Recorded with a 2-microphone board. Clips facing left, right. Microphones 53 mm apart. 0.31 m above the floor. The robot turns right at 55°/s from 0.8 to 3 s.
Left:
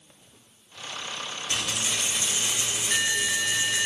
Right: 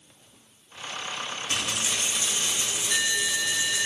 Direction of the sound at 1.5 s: 25° right.